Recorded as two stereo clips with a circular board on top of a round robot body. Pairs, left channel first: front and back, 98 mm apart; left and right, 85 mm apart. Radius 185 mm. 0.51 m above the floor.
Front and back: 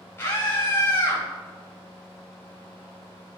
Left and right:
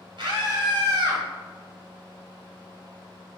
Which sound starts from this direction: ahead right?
A scream, at 0.2 s.